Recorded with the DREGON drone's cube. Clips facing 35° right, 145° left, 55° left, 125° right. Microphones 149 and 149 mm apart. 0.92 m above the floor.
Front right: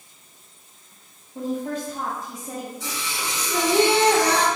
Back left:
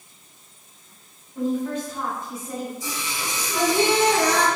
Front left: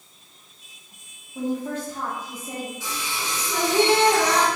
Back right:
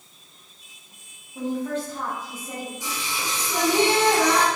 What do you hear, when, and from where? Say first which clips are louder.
1.4 s a woman speaking: back left 3 dB, even; 15° right, 0.8 m
2.8 s singing: even, even; 50° right, 1.2 m